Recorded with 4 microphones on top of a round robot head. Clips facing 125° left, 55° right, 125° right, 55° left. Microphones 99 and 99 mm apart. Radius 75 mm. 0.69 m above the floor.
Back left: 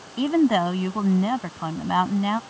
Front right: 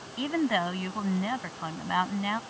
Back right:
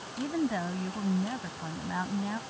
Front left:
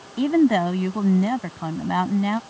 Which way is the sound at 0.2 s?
65° left.